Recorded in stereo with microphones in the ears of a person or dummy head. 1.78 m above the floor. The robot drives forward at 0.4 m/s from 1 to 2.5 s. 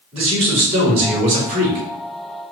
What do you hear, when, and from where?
0.1 s a man speaking: 35° right (ahead or behind), 2 m; by 1.9 s 45° right (ahead or behind), 1.9 m